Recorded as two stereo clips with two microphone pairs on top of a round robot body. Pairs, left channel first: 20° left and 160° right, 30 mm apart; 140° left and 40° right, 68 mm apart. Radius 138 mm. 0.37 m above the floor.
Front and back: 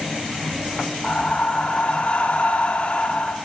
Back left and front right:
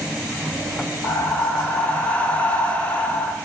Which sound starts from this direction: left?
Breathing, at 1.0 s.